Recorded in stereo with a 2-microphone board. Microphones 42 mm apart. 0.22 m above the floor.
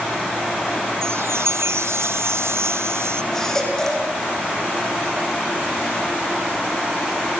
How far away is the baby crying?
About 9 m.